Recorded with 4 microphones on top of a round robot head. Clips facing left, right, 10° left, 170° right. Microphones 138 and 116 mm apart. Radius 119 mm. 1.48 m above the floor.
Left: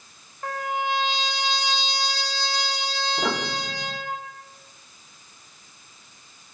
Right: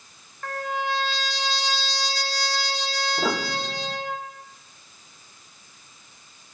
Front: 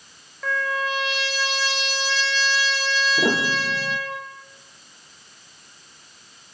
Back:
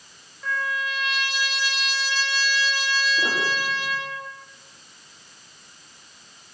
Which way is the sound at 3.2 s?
5° right.